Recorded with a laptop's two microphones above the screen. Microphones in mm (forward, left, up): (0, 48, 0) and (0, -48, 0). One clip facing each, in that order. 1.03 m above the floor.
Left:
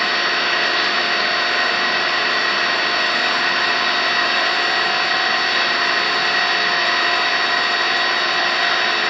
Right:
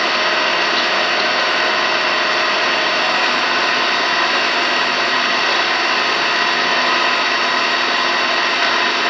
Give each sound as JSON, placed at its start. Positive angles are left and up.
{"t": 0.0, "sound": "an engine running", "side_deg": -80, "distance_m": 1.1}